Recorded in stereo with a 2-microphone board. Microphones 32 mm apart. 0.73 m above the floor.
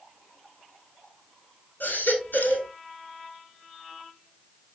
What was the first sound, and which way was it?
A baby crying, 70° left (ahead or behind).